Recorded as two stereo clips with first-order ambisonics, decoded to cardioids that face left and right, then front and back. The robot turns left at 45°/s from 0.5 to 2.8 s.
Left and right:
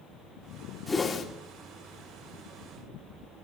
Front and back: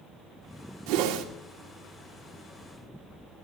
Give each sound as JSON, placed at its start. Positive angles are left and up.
{"t": 0.9, "sound": "a whoosh", "azimuth_deg": 175, "distance_m": 1.9}